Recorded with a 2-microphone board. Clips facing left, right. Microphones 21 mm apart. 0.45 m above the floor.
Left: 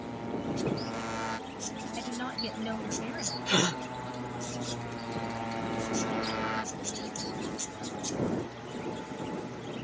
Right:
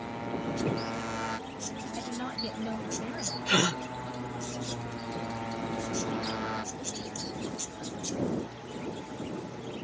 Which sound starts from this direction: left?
A woman speaking, at 2.0 s.